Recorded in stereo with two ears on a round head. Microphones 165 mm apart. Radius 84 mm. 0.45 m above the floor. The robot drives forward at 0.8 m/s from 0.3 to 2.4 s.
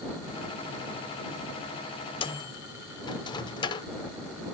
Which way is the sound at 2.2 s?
25° left (ahead or behind).